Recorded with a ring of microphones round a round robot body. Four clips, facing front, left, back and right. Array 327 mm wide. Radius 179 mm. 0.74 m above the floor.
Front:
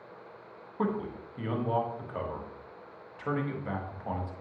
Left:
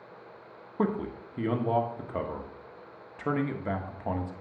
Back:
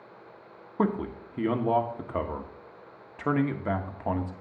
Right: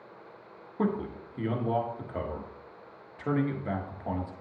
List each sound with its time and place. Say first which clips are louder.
0.8 s a man speaking: left 1 dB, back 4 dB; 160° left, 1.4 m